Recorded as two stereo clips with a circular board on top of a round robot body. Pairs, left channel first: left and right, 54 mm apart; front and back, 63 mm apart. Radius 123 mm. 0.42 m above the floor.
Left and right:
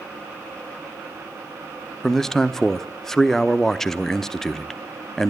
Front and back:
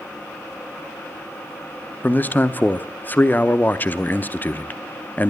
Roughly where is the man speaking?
Ahead.